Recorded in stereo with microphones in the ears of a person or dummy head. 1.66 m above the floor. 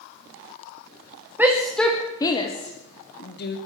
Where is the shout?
10° right (ahead or behind), 1.2 m; by 3.6 s 60° left (ahead or behind), 1.5 m.